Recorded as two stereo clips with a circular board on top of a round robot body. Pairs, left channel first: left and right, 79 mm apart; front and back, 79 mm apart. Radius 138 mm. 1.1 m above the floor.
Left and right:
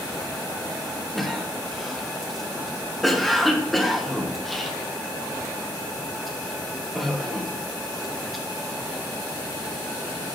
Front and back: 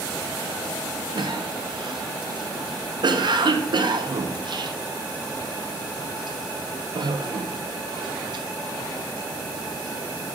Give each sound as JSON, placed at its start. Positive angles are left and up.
{"t": 1.1, "sound": "a cough", "azimuth_deg": 180, "distance_m": 1.2}